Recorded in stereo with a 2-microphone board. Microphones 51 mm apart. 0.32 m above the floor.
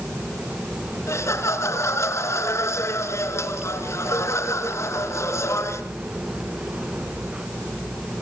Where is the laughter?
65° left (ahead or behind), 3.5 m.